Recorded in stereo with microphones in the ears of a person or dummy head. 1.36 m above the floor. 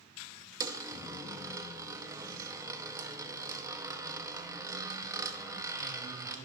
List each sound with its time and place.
0.6 s a dropped coin: 20° right (ahead or behind), 0.9 m